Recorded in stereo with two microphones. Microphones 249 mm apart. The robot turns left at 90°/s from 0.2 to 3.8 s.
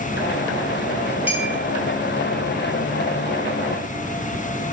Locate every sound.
1.3 s a clink: 5° right (ahead or behind), 1.1 m; by 1.5 s 10° left (ahead or behind), 1.1 m